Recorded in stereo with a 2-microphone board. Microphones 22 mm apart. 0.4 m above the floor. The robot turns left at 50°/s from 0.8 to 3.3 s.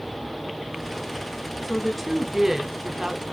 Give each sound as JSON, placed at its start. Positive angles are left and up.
{"t": 1.6, "sound": "a woman speaking", "azimuth_deg": 15, "distance_m": 1.3}